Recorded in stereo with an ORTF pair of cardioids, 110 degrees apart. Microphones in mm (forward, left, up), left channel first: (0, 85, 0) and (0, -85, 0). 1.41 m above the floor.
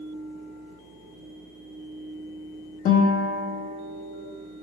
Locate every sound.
0.0 s a fan: 65° right, 2 m
2.9 s a guitar: 50° left, 1.8 m